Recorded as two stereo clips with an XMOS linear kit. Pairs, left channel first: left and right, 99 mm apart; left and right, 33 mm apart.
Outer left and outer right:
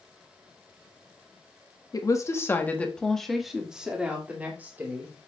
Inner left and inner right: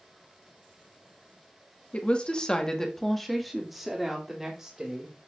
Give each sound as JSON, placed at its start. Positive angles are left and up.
{"t": 1.9, "sound": "a woman speaking", "side_deg": 40, "distance_m": 1.3}